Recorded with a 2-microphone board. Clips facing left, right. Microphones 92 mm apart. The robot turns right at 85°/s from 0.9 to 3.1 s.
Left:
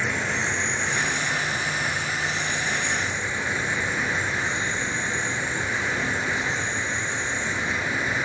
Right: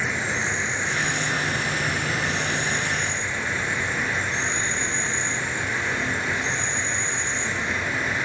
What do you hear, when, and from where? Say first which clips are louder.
0.0 s an insect: even; 175° right, 2.5 m; by 8.2 s 10° left, 2.5 m